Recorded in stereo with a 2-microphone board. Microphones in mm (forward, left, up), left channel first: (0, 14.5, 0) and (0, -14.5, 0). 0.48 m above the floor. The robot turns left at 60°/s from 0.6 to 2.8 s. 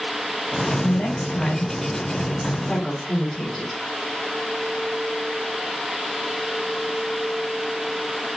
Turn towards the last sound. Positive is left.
turn(degrees=-15)  # may be behind; listen again after turning